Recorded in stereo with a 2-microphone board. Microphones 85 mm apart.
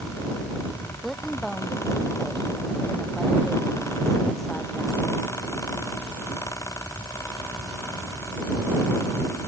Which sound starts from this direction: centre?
A woman speaking, at 1.0 s.